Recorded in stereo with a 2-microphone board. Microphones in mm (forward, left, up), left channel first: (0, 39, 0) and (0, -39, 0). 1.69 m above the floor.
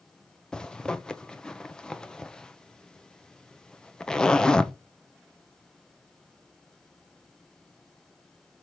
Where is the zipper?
10° left (ahead or behind), 0.7 m.